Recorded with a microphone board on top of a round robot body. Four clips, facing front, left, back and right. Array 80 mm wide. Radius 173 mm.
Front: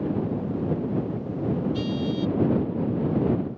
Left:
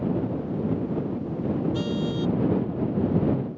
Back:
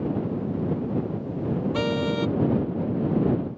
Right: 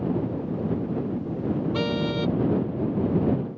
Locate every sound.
1.7 s a car horn: 150° right